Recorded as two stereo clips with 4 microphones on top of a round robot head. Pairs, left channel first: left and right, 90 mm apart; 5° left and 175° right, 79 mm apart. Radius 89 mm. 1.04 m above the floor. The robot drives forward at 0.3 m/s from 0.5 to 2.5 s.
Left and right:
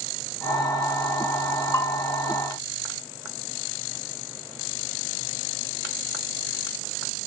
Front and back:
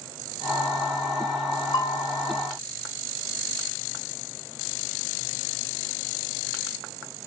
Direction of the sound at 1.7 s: 40° left.